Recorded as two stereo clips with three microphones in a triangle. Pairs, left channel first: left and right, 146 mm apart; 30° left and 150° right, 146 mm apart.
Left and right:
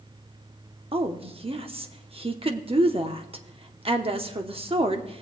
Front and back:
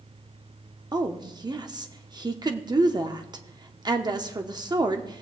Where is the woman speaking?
105° right, 0.8 m.